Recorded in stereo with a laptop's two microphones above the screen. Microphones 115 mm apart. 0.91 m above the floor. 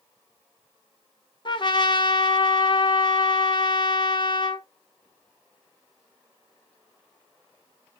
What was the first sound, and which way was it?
A trumpet, 45° left (ahead or behind).